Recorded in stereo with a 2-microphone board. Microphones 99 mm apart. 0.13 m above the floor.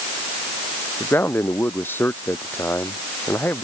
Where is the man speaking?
20° left (ahead or behind).